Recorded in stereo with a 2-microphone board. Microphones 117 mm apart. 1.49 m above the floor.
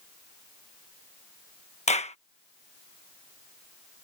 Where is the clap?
70° left (ahead or behind).